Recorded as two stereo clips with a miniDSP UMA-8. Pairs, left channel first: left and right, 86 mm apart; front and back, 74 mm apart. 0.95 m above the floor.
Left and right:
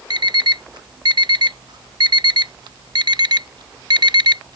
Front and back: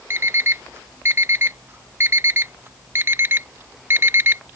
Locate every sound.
0.1 s an alarm clock: 120° right